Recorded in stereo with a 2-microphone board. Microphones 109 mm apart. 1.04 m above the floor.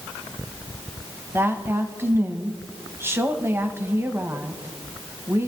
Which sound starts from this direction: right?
A woman speaking, at 1.3 s.